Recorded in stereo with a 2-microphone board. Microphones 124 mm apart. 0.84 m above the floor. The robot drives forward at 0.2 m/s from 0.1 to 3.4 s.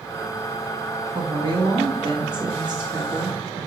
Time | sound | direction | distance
1.1 | a woman speaking | 45° right (ahead or behind) | 1.2 m